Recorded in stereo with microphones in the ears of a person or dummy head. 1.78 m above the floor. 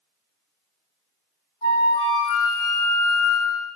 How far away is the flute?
About 2.5 m.